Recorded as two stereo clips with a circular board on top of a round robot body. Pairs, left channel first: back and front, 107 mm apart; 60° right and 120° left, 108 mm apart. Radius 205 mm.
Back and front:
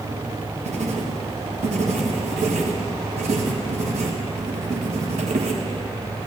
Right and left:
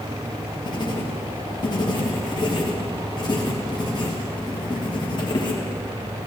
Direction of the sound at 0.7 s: 10° right.